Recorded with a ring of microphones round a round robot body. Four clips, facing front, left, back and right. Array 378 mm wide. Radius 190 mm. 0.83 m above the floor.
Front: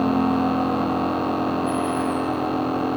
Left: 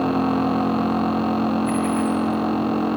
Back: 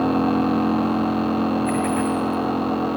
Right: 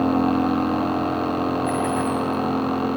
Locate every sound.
1.6 s a dropped coin: 175° left, 7 m